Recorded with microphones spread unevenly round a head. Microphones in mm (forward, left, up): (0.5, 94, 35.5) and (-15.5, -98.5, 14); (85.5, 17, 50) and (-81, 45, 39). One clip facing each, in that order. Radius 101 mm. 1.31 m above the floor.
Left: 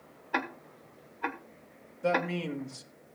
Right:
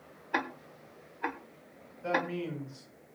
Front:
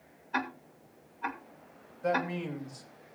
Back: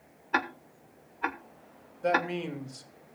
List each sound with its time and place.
0.3 s ticking: straight behind, 1.2 m
2.0 s a man speaking: 110° left, 2 m